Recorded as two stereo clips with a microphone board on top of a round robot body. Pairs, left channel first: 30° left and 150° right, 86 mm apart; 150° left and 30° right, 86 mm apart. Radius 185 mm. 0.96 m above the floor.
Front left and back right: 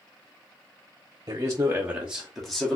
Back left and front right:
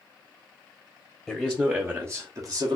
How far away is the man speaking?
About 0.8 m.